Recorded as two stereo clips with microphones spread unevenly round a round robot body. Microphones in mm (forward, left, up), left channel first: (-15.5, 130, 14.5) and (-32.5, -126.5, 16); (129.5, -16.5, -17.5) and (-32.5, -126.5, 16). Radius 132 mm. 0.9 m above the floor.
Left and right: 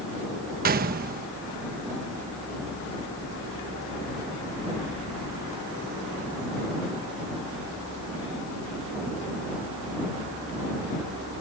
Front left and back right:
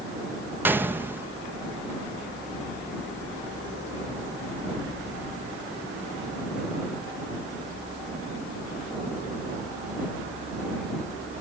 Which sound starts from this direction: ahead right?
A gunshot, at 0.7 s.